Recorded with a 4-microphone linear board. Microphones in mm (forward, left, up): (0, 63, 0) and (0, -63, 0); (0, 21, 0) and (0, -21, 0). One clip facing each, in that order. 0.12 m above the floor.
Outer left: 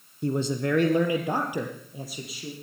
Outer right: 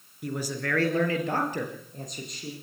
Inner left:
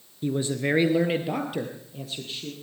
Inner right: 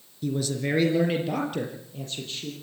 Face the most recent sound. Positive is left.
turn(degrees=5)  # may be behind; listen again after turning